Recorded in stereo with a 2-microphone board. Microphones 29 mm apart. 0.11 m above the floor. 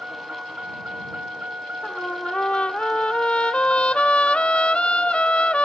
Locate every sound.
0.0 s a vehicle: 50° right (ahead or behind); by 5.7 s 45° right (ahead or behind)
1.8 s a trumpet: 40° left (ahead or behind)